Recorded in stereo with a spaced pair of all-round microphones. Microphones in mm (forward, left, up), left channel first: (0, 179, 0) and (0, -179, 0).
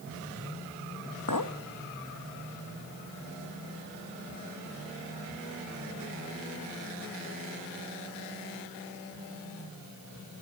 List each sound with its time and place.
1.3 s a clink: 60° left (ahead or behind), 1.3 m